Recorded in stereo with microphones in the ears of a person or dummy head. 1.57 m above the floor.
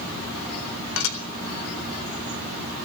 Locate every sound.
1.0 s dishes clattering: 70° left (ahead or behind), 4 m